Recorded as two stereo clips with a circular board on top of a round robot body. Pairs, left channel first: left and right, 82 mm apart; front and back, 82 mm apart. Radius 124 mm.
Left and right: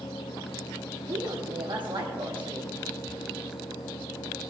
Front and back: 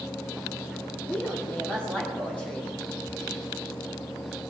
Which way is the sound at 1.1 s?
75° right.